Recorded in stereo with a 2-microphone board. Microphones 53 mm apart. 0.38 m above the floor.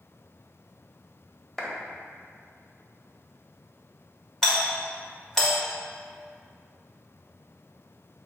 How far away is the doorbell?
About 1.5 m.